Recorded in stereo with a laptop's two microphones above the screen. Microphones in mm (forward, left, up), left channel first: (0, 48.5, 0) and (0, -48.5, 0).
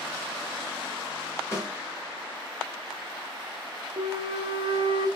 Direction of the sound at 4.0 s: 65° right (ahead or behind).